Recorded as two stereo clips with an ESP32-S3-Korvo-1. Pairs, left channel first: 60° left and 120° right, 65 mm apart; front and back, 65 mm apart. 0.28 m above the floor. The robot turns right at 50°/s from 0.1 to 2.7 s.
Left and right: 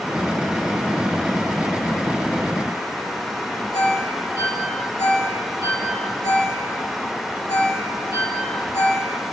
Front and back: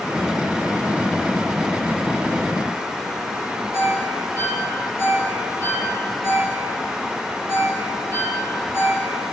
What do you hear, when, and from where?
3.7 s a ringtone: 45° left, 3.5 m